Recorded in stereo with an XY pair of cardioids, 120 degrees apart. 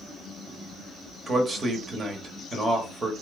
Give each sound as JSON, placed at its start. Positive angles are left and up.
{"t": 1.3, "sound": "a man speaking", "azimuth_deg": -30, "distance_m": 0.9}